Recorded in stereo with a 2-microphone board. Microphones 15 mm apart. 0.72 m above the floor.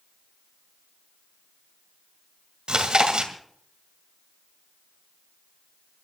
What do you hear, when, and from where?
2.7 s chewing: 85° right, 2 m